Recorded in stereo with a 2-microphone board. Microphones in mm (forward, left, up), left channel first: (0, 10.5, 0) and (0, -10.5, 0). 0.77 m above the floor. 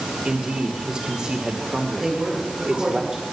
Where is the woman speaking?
30° right (ahead or behind), 9 m.